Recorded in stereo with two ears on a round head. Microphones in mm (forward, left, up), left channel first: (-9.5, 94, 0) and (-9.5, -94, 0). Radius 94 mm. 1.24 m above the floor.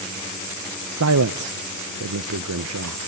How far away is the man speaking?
About 0.7 m.